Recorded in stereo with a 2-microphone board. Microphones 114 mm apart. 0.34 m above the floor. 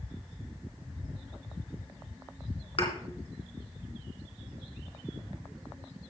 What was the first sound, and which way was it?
A thud, 55° left (ahead or behind).